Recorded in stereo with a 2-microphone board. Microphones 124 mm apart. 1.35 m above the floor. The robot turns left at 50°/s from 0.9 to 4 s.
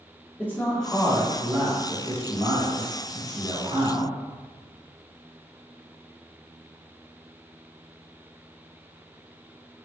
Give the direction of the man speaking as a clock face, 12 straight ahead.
12 o'clock.